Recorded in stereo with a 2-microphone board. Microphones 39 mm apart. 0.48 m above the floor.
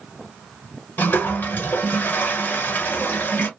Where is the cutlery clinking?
I don't hear cutlery clinking.